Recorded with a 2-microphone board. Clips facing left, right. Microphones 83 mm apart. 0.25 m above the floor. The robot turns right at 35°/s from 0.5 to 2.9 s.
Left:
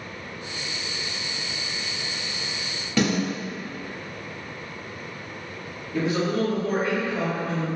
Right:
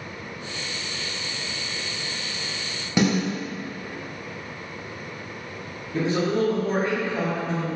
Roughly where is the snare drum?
Centre.